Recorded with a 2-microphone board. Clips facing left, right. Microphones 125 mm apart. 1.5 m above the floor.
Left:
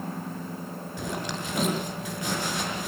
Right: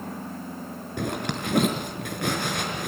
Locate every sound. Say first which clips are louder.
1.0 s a zipper: right 4 dB; 60° right (ahead or behind), 5 m